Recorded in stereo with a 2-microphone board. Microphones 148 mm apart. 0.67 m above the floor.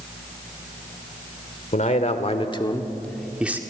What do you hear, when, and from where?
1.7 s a man speaking: 60° left (ahead or behind), 2 m; by 3.6 s 15° right (ahead or behind), 1.5 m